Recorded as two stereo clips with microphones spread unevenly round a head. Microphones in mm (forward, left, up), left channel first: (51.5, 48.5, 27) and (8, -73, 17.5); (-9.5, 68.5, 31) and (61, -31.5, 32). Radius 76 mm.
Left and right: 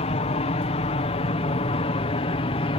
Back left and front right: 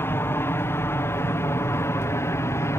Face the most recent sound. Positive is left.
turn(degrees=70)